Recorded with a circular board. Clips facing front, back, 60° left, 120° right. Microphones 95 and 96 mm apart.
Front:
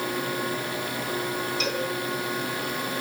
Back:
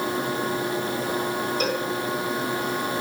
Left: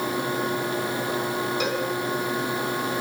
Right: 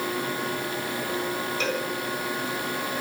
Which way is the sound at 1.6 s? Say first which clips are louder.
Back 2 dB, left 2 dB; 135° left.